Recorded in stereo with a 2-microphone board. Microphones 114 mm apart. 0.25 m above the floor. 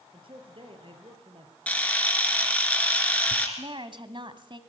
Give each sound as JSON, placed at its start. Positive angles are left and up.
{"t": 0.1, "sound": "a man speaking", "side_deg": -50, "distance_m": 4.5}
{"t": 1.7, "sound": "a camera shutter", "side_deg": 15, "distance_m": 3.0}
{"t": 3.6, "sound": "a woman speaking", "side_deg": -45, "distance_m": 1.6}